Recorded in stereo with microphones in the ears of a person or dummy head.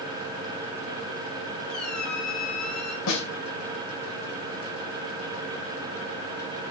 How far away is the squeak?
About 8.5 m.